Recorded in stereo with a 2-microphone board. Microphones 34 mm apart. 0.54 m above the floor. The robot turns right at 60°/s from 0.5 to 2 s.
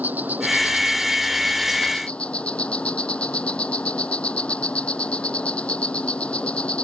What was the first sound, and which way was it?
An insect, 55° right.